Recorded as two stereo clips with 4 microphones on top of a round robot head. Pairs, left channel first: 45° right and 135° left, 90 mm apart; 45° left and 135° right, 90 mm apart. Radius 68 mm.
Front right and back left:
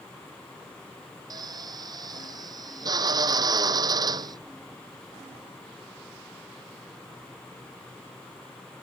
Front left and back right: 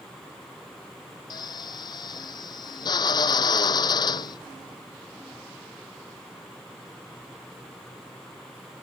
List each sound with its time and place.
1.3 s a drill: 90° left